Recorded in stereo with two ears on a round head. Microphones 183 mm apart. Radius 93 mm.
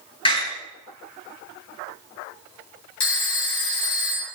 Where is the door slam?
25° left (ahead or behind), 7 m.